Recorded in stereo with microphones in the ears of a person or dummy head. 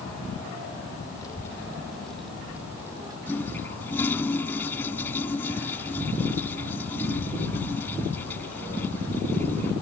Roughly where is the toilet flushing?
Centre.